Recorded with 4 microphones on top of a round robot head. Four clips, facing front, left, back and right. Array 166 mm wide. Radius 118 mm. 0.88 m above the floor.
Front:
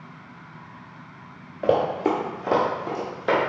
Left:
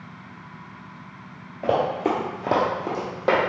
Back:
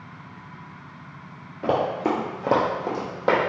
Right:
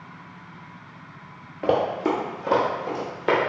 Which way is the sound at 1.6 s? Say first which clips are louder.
Even, front 2 dB; 45° right.